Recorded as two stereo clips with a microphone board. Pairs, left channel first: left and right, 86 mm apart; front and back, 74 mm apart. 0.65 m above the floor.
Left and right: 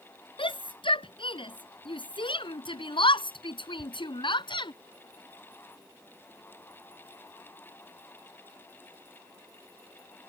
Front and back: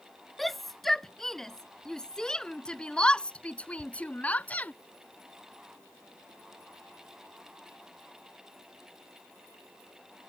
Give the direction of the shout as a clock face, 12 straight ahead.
9 o'clock.